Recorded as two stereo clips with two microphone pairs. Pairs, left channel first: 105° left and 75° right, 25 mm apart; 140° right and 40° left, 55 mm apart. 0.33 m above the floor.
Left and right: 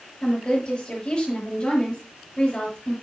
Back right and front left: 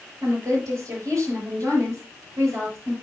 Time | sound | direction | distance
0.2 | a woman speaking | 55° left | 6 m